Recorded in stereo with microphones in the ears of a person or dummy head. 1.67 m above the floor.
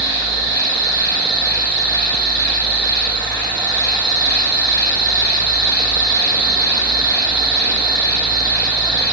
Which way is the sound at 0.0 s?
20° left (ahead or behind).